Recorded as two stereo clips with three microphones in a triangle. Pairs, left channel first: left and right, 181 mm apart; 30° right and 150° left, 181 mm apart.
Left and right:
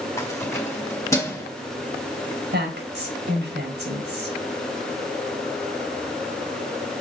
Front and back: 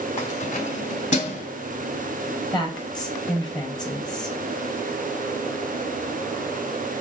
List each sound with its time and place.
0.2 s keys jangling: 15° left, 1.8 m
2.5 s a woman speaking: 95° right, 4 m